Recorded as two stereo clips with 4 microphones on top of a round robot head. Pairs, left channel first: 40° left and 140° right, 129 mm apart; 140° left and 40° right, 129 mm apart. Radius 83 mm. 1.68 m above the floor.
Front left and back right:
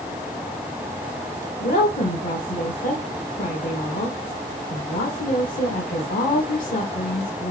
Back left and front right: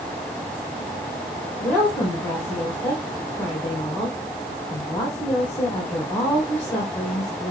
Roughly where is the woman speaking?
Ahead left.